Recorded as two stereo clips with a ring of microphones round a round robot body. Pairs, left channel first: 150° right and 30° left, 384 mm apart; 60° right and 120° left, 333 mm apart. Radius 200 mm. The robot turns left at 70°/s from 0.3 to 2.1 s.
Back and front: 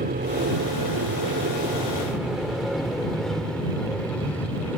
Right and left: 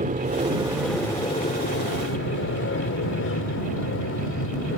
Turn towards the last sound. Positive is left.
turn(degrees=-65)